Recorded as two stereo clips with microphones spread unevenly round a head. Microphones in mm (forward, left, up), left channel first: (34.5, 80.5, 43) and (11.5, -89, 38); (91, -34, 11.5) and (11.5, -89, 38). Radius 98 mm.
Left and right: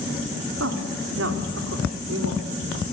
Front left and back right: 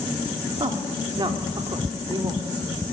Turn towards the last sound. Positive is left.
turn(degrees=-105)